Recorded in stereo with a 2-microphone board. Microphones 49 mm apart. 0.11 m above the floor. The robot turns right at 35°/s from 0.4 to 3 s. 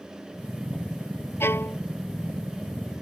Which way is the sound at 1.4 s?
60° left (ahead or behind).